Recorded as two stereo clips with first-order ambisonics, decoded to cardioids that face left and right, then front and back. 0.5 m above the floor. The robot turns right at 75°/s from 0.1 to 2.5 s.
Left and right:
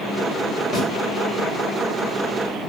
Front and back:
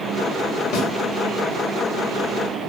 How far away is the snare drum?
About 1.6 m.